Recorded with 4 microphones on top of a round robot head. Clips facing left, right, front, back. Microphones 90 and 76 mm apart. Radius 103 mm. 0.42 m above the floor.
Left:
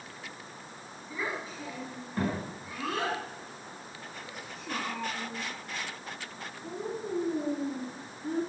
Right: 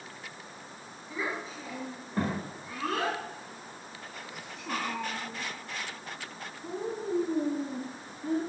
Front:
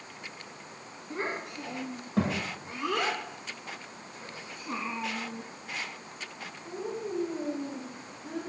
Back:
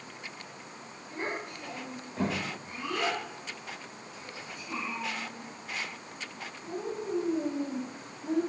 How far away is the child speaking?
About 5 m.